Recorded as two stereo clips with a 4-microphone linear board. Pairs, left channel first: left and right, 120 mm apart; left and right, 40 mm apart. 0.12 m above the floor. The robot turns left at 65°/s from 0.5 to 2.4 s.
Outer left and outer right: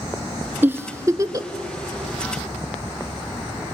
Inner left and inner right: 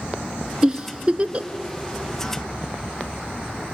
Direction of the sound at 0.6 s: 15° right (ahead or behind).